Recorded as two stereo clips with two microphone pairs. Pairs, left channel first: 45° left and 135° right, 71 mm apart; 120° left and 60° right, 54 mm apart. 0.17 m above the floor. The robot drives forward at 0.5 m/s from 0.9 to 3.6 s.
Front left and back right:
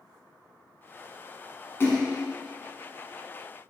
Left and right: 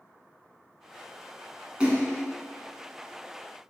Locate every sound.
1.8 s a splash: 5° left, 0.8 m; by 2.2 s 10° left, 0.7 m